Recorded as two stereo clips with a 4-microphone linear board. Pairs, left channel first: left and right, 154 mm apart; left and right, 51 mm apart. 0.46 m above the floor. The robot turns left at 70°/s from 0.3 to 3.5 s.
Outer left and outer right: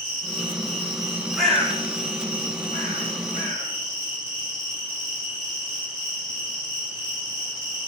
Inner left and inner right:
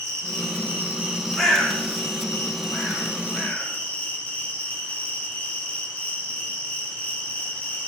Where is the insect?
105° right, 5 m; by 7.9 s 30° left, 5 m.